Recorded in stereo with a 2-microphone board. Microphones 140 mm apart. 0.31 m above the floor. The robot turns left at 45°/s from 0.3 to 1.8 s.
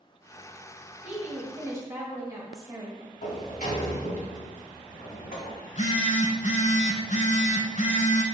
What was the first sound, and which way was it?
A woman speaking, 15° right (ahead or behind).